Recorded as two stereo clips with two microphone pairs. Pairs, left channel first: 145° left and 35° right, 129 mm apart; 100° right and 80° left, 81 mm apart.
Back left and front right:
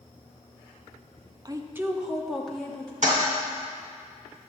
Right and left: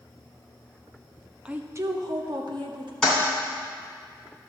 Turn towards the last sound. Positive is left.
turn(degrees=-15)